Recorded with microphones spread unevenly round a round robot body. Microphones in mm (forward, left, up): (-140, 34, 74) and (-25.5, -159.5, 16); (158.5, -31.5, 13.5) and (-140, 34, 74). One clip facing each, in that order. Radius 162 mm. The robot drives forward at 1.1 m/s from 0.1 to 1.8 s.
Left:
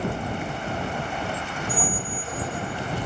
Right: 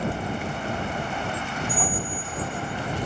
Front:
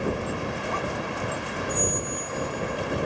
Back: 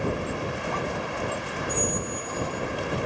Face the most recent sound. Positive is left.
turn(degrees=170)